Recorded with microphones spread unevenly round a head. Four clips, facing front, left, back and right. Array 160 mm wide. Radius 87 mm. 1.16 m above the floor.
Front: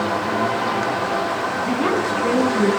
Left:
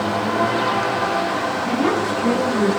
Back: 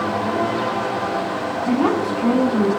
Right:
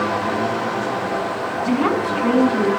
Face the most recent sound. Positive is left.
turn(degrees=-165)